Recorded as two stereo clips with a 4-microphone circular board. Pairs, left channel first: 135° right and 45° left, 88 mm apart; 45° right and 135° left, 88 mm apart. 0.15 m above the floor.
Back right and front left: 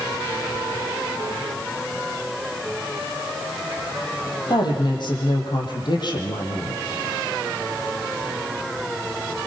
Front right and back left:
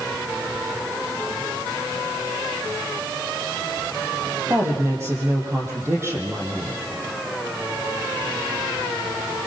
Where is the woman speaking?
165° right, 6 m.